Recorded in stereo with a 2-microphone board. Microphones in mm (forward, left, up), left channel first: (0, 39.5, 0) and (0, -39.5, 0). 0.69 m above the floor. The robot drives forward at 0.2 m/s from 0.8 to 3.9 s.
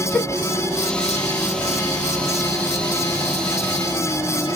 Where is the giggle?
10° left (ahead or behind), 1.1 m.